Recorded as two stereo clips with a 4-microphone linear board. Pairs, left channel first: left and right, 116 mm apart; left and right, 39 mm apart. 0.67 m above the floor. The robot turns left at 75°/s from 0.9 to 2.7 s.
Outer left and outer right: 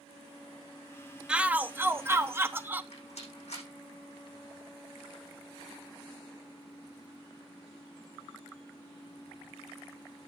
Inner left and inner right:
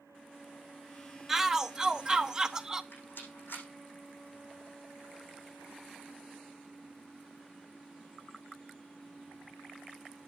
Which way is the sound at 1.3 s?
10° right (ahead or behind).